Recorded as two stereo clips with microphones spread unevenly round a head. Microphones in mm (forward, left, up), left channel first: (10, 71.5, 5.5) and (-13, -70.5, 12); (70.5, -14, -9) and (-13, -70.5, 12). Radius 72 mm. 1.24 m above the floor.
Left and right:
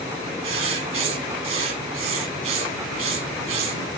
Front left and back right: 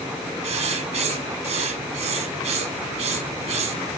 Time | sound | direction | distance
0.4 | writing | 145° right | 2.5 m